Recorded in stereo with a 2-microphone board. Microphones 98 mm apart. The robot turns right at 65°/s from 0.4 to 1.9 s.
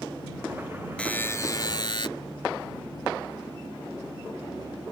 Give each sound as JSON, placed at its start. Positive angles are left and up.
{"t": 1.0, "sound": "a buzzer", "azimuth_deg": 15}